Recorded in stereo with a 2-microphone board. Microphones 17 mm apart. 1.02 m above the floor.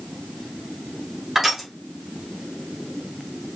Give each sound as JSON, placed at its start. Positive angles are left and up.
{"t": 1.4, "sound": "crushing", "side_deg": -20, "distance_m": 1.3}